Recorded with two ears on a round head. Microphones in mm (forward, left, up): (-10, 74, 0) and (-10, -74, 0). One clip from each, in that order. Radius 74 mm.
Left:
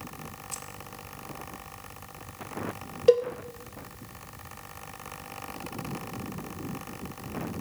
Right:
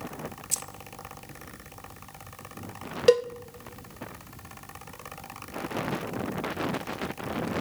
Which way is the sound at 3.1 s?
35° right (ahead or behind).